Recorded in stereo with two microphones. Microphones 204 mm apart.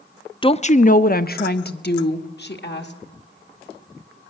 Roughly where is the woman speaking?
Left.